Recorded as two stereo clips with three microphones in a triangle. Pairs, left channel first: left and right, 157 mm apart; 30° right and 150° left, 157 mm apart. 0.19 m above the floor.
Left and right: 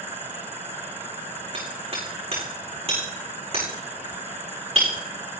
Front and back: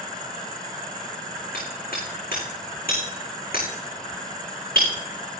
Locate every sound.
1.5 s hammering: 40° right, 8 m